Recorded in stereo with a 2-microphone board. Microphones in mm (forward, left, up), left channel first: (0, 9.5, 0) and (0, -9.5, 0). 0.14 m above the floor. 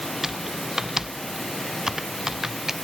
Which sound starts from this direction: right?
Typing on a keyboard, at 0.2 s.